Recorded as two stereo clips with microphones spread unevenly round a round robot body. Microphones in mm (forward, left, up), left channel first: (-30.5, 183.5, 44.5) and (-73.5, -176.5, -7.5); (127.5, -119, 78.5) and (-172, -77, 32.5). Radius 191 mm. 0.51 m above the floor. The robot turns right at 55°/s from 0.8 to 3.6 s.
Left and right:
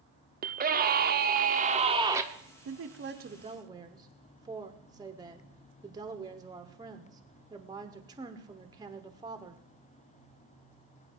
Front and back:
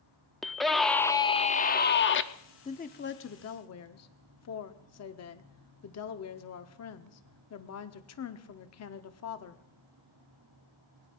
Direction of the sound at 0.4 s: 110° right.